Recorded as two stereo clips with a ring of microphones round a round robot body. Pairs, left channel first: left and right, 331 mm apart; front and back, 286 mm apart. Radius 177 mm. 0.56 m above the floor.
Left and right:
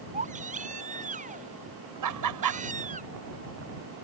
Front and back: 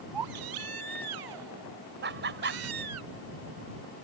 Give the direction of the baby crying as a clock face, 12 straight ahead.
5 o'clock.